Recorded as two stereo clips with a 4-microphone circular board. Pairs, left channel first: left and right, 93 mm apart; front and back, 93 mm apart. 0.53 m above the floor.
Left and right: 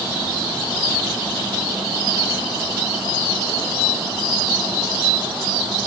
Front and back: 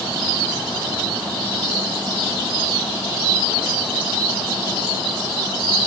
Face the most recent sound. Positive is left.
No sound to turn to.